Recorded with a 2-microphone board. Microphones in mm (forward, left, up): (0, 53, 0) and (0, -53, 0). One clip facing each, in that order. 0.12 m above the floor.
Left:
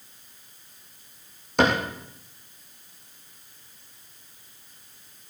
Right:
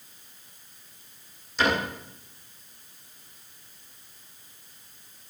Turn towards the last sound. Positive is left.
turn(degrees=60)  # may be behind; listen again after turning